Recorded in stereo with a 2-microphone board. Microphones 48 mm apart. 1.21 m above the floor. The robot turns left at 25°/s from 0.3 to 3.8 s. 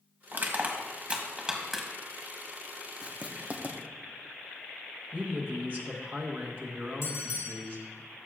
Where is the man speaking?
40° right (ahead or behind), 1.3 m.